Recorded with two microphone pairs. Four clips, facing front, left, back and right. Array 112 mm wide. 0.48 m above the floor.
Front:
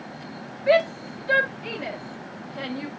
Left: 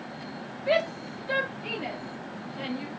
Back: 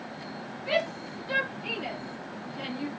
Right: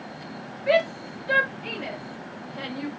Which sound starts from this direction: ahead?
A shout, at 0.7 s.